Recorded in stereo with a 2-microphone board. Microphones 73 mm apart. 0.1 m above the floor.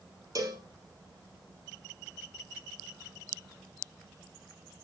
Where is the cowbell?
55° right (ahead or behind), 2.5 m.